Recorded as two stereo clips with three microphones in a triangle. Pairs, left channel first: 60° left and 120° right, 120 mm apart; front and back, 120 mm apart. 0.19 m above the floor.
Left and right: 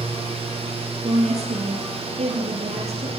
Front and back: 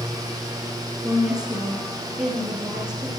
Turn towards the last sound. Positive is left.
turn(degrees=-95)